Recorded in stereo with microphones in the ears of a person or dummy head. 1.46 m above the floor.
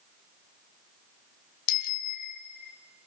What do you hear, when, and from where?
1.7 s a bicycle bell: 60° left (ahead or behind), 2 m; by 2.7 s 65° left (ahead or behind), 3.5 m